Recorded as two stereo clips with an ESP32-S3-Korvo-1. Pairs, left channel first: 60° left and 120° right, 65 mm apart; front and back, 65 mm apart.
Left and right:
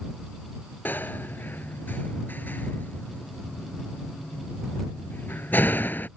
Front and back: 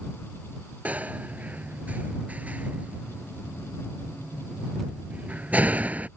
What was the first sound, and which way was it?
A door slam, 115° left.